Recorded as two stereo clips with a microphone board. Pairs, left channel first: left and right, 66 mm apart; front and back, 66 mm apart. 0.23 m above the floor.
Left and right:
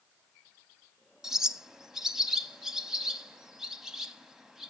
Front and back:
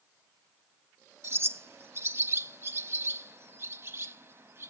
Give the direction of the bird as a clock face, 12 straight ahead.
6 o'clock.